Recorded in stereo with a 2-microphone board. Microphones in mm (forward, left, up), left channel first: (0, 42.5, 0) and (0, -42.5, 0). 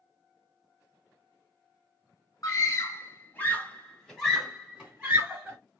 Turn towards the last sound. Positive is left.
turn(degrees=-20)  # may be behind; listen again after turning